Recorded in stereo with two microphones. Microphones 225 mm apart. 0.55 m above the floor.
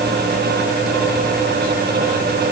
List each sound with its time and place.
Only background noise.